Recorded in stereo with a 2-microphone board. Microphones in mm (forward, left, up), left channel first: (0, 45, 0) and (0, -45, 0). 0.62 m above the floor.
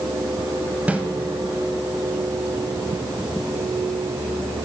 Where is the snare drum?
15° right (ahead or behind), 1.0 m.